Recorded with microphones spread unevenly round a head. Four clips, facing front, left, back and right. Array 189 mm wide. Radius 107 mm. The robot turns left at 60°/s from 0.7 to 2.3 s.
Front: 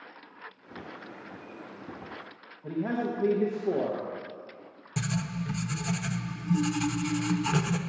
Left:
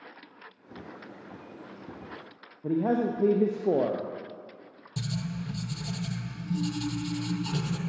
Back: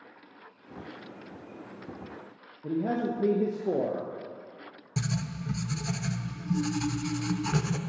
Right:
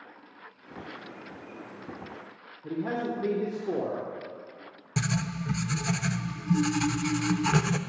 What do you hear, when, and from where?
2.6 s a man speaking: 110° left, 0.8 m
5.0 s writing: 60° right, 0.6 m